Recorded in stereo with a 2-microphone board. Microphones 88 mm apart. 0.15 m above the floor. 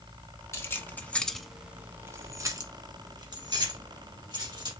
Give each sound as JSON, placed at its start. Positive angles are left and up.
{"t": 0.5, "sound": "keys jangling", "side_deg": 30, "distance_m": 1.1}